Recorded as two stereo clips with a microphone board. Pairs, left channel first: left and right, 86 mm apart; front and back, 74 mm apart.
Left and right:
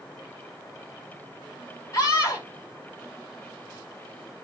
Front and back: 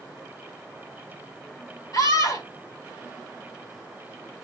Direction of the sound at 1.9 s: 35° left.